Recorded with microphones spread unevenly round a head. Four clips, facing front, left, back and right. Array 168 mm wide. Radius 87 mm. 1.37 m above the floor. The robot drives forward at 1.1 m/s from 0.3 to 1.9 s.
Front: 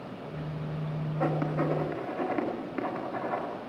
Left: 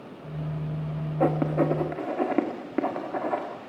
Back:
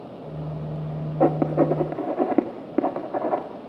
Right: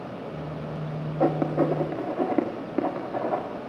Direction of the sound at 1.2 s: 175° right.